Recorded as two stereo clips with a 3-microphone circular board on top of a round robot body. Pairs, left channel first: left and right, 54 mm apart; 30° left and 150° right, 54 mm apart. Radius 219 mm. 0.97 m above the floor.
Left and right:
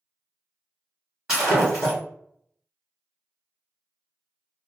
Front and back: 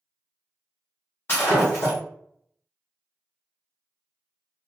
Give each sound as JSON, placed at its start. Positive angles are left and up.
{"t": 1.3, "sound": "breaking glass", "azimuth_deg": -20, "distance_m": 0.7}